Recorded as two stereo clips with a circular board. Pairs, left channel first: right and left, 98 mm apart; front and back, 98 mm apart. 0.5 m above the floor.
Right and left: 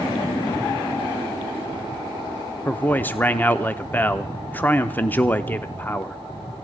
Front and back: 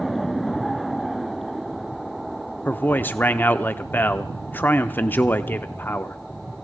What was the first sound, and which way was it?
A man speaking, 45° right.